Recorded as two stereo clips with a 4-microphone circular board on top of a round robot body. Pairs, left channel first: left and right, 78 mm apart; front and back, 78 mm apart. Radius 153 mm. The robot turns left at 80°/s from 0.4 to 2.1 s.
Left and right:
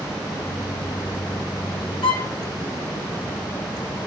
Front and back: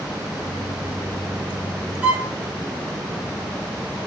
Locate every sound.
2.0 s a violin: 110° left, 1.2 m; by 2.4 s 105° left, 1.2 m